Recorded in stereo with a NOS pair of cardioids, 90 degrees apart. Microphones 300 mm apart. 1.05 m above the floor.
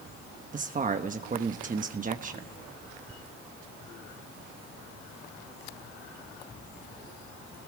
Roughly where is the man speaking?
Ahead right.